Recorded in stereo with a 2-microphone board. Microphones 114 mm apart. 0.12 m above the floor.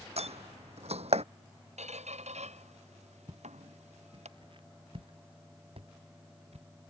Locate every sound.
0.2 s a door slam: 70° right (ahead or behind)
1.8 s a squeak: 80° right
3.3 s footsteps: 40° right (ahead or behind); by 6.7 s 65° right (ahead or behind)